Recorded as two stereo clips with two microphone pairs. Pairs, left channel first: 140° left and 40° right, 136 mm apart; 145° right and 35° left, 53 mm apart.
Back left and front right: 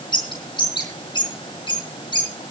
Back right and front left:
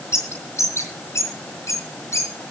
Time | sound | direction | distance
0.1 | a bird | 165° right | 3.5 m